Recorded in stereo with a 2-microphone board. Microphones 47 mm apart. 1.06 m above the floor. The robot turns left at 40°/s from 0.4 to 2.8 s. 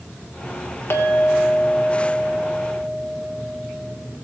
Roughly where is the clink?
Ahead left.